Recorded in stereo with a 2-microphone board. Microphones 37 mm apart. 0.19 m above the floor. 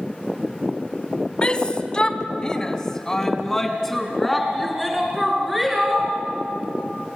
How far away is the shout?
About 1.5 m.